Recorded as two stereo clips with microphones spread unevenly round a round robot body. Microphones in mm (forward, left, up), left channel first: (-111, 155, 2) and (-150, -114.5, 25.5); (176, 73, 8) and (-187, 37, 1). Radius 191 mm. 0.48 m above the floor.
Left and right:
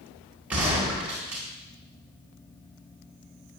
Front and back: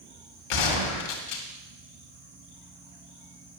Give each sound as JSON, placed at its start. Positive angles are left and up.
{"t": 0.5, "sound": "a gunshot", "azimuth_deg": -10, "distance_m": 2.0}